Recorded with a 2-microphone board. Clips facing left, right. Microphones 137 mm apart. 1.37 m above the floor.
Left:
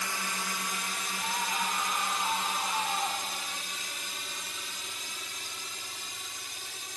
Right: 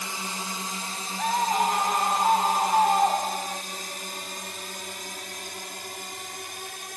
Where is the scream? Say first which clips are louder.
Right 11 dB; 60° right (ahead or behind).